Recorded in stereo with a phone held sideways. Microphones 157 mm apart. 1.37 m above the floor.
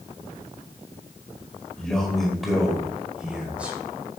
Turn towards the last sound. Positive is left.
turn(degrees=-10)  # may be behind; listen again after turning